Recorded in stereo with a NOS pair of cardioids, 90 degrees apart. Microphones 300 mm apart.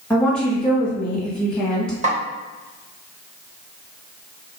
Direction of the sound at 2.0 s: 25° right.